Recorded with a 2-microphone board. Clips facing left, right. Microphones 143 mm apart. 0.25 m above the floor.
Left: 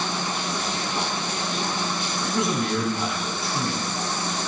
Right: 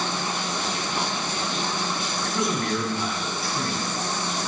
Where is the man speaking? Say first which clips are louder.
Left 2 dB; 25° left (ahead or behind), 2 m.